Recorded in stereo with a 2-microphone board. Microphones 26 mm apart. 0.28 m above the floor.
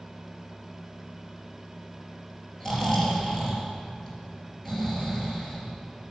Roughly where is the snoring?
Centre.